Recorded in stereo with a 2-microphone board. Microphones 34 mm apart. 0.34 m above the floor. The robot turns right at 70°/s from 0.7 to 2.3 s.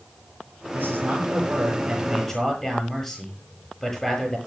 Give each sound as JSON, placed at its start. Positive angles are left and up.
{"t": 0.7, "sound": "a man speaking", "azimuth_deg": -100, "distance_m": 8.5}